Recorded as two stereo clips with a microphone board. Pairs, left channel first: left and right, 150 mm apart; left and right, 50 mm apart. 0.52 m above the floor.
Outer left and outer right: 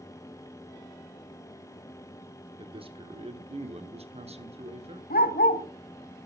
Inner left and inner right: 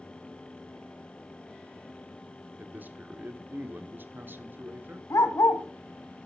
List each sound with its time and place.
2.6 s a man speaking: 35° right (ahead or behind), 1.4 m; by 5.0 s 40° right (ahead or behind), 1.8 m
5.1 s a dog barking: 80° left, 1.7 m